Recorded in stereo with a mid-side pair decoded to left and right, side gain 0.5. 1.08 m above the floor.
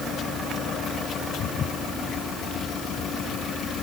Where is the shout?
No shout in this recording.